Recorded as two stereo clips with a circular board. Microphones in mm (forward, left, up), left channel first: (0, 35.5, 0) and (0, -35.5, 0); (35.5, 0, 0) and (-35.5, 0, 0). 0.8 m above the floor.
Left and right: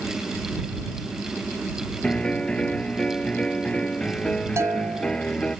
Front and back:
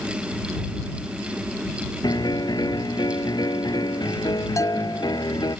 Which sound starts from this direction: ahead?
A piano, at 2.0 s.